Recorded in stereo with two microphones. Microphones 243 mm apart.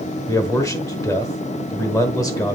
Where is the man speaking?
15° left (ahead or behind), 1.2 m.